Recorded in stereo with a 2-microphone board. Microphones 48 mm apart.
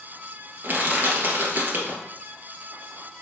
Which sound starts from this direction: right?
Crushing, at 0.6 s.